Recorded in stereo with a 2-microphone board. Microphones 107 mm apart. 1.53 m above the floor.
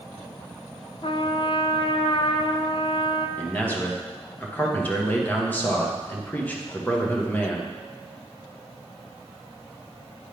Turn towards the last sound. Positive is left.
turn(degrees=15)  # may be behind; listen again after turning